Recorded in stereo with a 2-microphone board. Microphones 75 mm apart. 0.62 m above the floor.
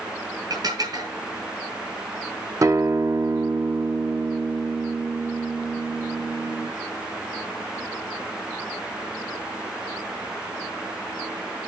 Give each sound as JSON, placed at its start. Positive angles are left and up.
{"t": 0.5, "sound": "dishes clattering", "side_deg": -60, "distance_m": 5.0}
{"t": 2.6, "sound": "a guitar", "side_deg": -45, "distance_m": 0.7}